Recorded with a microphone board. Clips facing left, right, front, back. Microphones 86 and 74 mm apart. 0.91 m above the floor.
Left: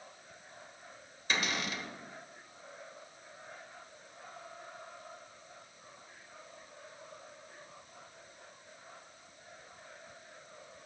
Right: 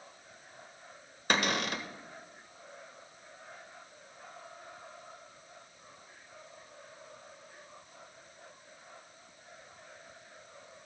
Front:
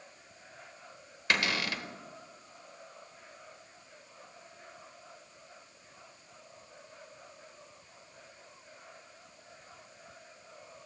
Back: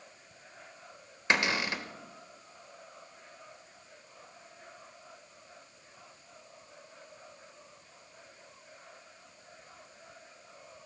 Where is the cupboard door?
110° right, 1.1 m.